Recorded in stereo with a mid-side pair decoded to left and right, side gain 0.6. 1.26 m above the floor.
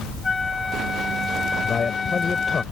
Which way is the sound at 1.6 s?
25° left.